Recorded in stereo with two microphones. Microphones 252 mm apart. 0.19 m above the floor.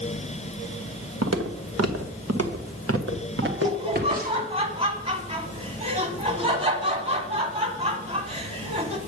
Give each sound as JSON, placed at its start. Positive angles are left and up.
{"t": 1.2, "sound": "footsteps", "side_deg": -75, "distance_m": 1.4}
{"t": 3.4, "sound": "laughter", "side_deg": -25, "distance_m": 1.2}